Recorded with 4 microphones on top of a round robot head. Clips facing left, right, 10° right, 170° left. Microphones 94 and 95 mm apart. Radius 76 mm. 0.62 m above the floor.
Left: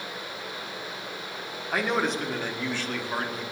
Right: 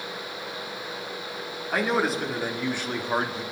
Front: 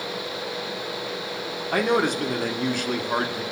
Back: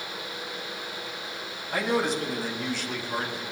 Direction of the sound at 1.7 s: Straight ahead.